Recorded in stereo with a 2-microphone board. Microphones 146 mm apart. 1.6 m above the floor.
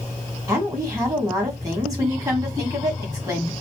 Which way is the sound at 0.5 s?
25° right (ahead or behind).